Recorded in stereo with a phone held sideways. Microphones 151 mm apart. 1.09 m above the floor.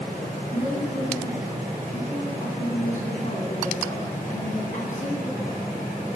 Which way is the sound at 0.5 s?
55° left (ahead or behind).